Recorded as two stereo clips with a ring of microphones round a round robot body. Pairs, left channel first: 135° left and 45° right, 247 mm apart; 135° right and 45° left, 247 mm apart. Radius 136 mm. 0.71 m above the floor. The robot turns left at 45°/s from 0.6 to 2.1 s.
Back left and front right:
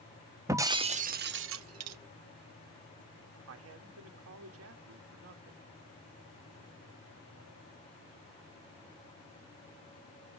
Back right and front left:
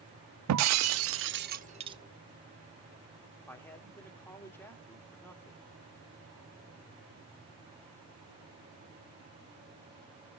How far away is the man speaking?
About 2.0 m.